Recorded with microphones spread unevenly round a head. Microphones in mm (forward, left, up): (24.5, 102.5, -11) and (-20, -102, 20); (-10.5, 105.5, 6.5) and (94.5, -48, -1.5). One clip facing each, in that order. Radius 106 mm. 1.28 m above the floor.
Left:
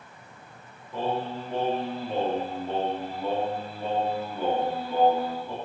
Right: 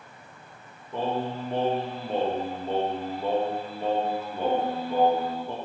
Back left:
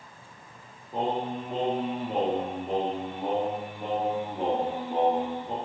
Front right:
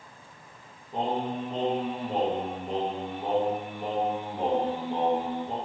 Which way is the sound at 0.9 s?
155° right.